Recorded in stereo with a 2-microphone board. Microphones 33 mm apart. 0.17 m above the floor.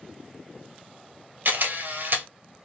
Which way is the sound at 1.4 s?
65° right (ahead or behind).